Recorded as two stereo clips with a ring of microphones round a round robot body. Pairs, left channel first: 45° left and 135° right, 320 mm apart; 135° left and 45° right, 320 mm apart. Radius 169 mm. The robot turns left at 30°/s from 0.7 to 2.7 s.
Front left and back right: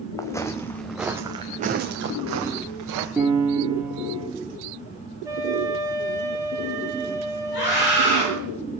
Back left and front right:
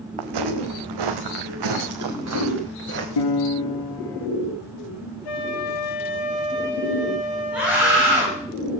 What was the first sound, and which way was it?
Footsteps, 35° right.